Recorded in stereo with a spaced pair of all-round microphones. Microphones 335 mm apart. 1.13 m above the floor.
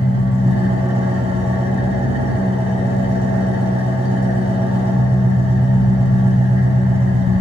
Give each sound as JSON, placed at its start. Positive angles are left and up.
{"t": 0.0, "sound": "an engine running", "side_deg": -15, "distance_m": 1.5}